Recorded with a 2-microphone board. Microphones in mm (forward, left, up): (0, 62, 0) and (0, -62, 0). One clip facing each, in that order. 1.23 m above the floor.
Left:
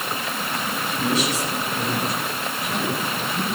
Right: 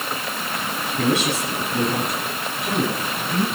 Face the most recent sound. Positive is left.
turn(degrees=-70)  # may be behind; listen again after turning